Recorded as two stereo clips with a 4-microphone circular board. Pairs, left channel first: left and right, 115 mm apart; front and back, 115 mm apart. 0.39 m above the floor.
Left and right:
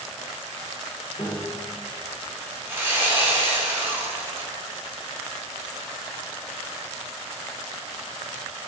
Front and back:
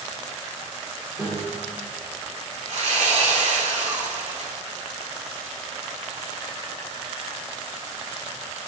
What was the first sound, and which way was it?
A piano, 115° left.